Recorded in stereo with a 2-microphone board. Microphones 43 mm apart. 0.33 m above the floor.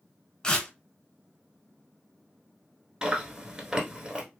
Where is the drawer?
I don't hear a drawer.